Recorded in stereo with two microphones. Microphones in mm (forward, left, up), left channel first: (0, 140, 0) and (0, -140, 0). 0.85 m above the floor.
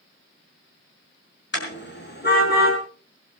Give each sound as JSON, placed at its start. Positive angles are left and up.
{"t": 1.5, "sound": "a car horn", "side_deg": 40, "distance_m": 4.5}